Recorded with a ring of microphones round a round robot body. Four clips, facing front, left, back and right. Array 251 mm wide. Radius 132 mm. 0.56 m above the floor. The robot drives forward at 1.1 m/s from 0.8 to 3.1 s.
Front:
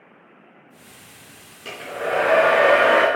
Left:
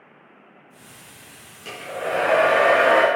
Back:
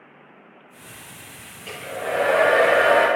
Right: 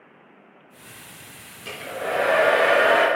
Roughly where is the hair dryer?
Ahead.